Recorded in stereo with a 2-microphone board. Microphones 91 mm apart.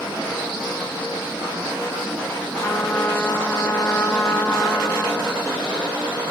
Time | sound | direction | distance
2.6 | a trumpet | 25° left (ahead or behind) | 1.0 m